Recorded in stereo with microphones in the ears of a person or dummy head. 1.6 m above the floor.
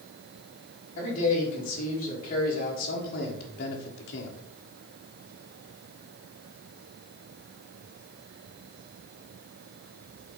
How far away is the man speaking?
About 3 m.